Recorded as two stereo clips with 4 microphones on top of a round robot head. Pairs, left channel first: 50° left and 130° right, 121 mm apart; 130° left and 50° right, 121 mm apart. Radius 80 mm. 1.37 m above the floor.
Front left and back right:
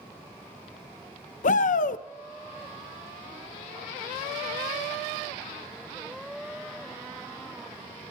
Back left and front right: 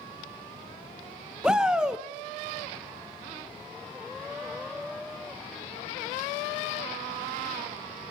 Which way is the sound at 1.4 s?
35° left.